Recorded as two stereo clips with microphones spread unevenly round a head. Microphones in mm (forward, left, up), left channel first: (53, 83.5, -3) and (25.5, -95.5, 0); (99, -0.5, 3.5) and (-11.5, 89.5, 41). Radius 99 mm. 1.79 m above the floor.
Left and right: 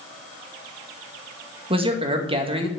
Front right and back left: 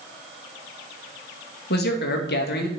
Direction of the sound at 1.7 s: 40° right.